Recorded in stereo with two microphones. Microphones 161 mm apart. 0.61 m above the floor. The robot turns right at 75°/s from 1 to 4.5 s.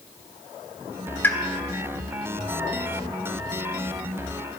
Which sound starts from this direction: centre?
A pop, at 1.2 s.